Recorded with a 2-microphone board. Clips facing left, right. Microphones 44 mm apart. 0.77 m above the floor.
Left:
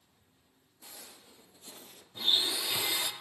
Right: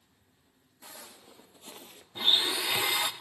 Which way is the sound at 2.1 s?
50° right (ahead or behind).